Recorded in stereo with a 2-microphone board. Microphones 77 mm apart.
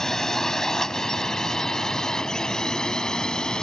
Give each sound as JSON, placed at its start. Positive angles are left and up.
{"t": 0.0, "sound": "a drone", "side_deg": 5}